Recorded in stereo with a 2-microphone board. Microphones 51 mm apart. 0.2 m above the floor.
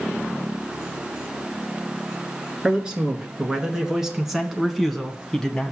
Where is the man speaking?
20° right (ahead or behind), 2 m; by 5.7 s 15° left (ahead or behind), 1.2 m.